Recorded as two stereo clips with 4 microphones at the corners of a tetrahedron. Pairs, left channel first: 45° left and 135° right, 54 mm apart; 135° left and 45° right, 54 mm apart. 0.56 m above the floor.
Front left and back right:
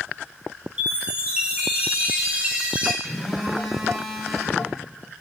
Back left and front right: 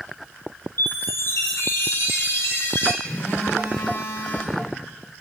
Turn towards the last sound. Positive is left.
turn(degrees=150)